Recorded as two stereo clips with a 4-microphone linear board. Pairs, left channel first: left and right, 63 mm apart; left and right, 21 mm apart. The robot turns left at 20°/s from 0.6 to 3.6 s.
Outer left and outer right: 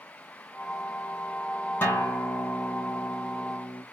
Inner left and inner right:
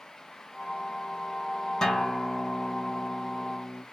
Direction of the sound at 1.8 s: 145° left.